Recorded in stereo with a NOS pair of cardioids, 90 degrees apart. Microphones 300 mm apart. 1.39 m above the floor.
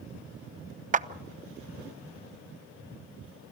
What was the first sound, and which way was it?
A clap, 25° right.